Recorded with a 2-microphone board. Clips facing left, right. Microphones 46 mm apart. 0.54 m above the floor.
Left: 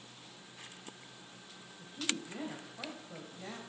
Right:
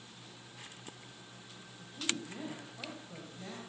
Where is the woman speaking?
10° left (ahead or behind), 2 m.